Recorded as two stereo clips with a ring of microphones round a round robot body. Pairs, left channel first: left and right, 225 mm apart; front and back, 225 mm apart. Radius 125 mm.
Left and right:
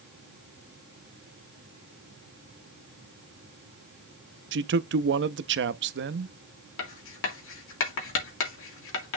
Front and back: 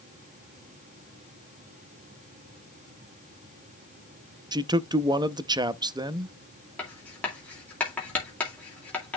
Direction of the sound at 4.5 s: 110° right.